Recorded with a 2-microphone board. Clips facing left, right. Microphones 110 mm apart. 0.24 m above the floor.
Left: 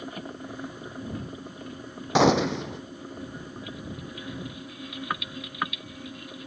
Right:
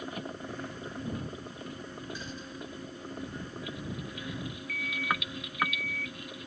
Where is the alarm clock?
25° left (ahead or behind).